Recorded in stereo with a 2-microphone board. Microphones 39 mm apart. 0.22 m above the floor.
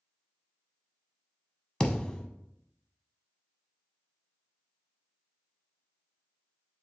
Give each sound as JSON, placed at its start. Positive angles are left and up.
{"t": 1.8, "sound": "a thud", "side_deg": 20, "distance_m": 0.6}